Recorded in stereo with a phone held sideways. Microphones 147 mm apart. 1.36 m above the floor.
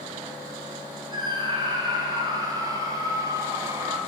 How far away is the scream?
About 6 m.